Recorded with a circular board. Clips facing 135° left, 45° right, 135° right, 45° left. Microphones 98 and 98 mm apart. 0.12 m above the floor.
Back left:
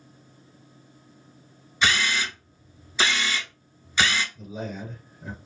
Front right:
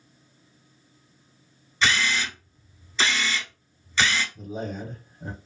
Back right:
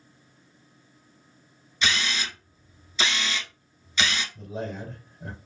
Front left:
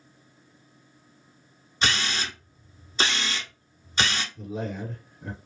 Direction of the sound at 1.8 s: 65° left.